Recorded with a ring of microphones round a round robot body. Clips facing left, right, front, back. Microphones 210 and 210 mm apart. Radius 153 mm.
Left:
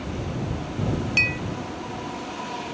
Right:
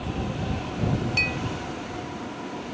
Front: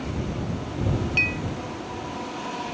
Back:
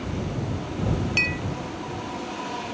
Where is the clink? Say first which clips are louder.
Even, even; 150° left.